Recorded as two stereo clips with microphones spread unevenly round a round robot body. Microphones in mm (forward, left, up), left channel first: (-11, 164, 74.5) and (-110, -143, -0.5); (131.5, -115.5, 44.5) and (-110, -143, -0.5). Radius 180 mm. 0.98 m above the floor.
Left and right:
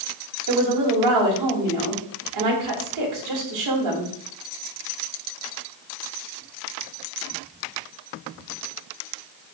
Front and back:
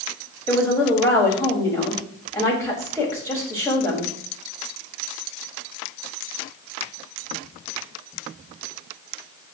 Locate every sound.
0.5 s a woman speaking: 75° right, 4.5 m